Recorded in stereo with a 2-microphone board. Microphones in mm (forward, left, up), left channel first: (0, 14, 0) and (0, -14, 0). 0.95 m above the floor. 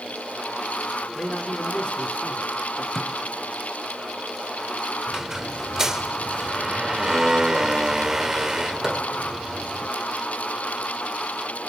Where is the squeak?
20° right (ahead or behind), 0.6 m.